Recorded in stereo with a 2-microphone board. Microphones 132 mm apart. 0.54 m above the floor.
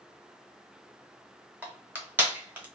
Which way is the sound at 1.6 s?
15° right (ahead or behind).